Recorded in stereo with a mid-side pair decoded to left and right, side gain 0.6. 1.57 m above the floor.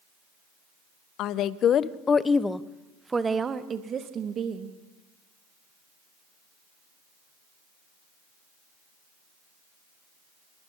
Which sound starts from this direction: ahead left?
A woman speaking, at 1.2 s.